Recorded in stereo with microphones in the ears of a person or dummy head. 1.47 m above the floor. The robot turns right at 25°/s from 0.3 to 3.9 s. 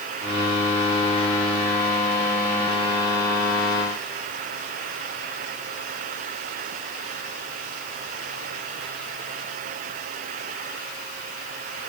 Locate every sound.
Only background noise.